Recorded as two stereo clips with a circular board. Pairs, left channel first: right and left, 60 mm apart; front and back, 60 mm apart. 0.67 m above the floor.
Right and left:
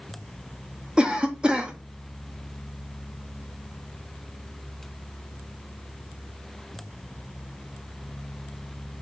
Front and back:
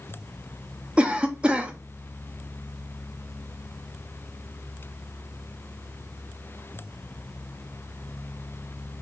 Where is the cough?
140° left, 0.5 m.